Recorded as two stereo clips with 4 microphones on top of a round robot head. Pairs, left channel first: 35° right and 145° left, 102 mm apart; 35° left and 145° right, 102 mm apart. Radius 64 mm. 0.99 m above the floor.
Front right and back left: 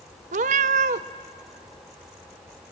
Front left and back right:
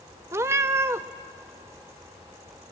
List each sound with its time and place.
0.3 s a cat meowing: 145° left, 0.6 m